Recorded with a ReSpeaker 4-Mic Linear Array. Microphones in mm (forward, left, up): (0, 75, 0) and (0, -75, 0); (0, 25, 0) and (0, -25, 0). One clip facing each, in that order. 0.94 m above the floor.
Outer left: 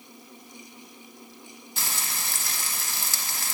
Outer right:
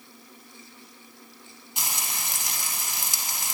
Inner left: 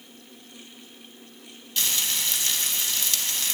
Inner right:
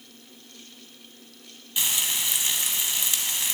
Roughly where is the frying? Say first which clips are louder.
Outer right 1 dB, even; centre.